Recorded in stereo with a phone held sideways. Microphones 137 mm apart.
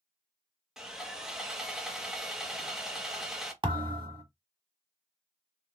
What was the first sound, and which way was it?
Sawing, 5° right (ahead or behind).